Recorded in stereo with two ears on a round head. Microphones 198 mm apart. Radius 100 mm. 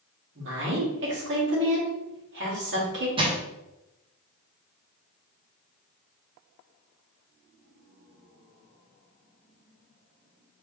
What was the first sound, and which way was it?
A woman speaking, 60° right (ahead or behind).